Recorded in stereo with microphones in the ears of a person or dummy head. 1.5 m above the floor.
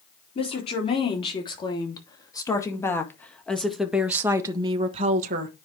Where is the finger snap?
I don't hear a finger snap.